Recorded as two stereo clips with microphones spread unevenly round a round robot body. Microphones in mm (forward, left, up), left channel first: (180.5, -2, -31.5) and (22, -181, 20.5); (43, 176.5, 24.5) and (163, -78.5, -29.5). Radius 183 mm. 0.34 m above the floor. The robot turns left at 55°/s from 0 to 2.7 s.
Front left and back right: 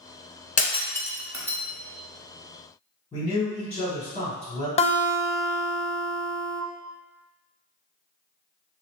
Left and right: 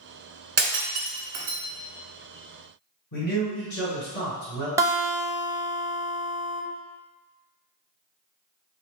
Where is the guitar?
5° left, 0.5 m.